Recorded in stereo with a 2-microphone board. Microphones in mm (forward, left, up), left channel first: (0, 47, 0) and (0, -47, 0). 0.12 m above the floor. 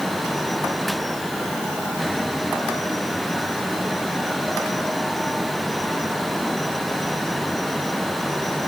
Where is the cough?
I don't hear a cough.